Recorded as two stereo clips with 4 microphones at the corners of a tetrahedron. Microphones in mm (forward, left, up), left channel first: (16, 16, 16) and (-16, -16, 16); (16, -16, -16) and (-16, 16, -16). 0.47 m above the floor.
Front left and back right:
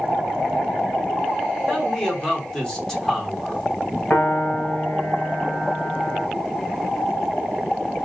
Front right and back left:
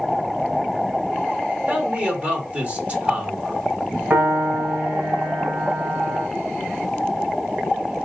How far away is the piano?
About 1.9 m.